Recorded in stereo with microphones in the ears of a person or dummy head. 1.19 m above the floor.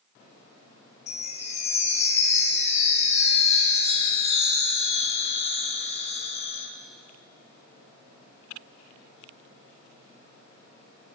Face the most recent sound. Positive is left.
turn(degrees=25)  # may be behind; listen again after turning